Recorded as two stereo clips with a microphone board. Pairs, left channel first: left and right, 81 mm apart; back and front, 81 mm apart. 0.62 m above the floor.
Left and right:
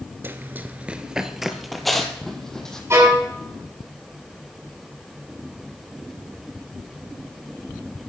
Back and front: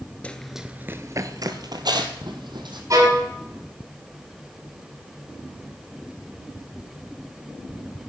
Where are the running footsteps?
120° right, 0.6 m; by 2.8 s 5° left, 1.7 m.